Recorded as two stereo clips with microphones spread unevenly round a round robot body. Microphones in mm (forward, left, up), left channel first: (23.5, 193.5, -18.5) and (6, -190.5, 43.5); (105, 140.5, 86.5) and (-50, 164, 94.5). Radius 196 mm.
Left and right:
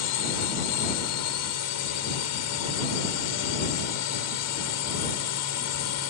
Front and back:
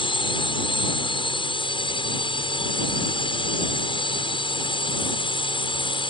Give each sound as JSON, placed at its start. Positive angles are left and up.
{"t": 0.0, "sound": "a drone", "azimuth_deg": 45}